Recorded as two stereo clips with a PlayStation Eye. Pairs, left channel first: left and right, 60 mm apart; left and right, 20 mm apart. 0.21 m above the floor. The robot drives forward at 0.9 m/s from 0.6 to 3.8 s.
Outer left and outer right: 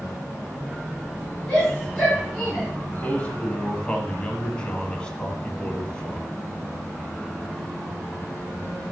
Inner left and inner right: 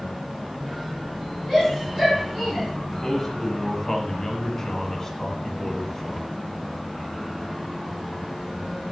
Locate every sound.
1.5 s a shout: 5° left (ahead or behind), 4 m
2.9 s a man speaking: 15° left (ahead or behind), 1.1 m